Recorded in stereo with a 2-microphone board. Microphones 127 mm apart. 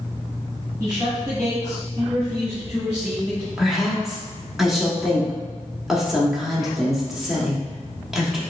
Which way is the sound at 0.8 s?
20° right (ahead or behind).